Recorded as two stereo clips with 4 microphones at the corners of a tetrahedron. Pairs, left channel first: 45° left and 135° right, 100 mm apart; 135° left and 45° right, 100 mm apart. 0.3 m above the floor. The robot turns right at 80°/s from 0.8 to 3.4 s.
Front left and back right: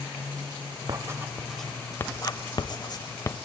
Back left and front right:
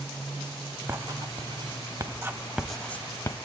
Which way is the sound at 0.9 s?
100° right.